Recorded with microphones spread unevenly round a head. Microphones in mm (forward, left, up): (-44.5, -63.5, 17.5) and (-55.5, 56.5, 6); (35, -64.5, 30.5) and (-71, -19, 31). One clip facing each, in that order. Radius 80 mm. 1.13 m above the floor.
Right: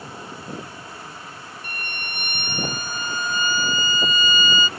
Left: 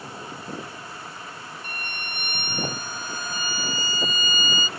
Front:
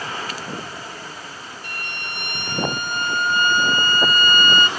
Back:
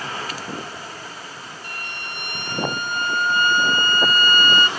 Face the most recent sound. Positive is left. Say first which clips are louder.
# right 2 dB, front 1 dB
turn(degrees=-35)